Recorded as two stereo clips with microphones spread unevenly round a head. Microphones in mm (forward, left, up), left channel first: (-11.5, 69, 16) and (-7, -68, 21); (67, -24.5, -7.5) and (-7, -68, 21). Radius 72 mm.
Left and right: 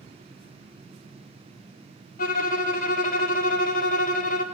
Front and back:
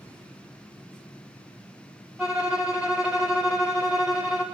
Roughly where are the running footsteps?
No running footsteps in this recording.